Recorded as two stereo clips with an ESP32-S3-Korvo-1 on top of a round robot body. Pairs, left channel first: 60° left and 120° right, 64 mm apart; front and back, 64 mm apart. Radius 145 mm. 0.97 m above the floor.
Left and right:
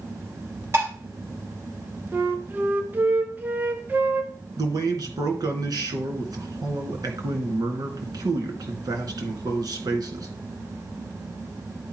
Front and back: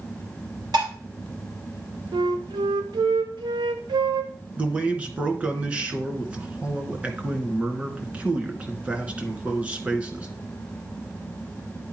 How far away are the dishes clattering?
About 3 m.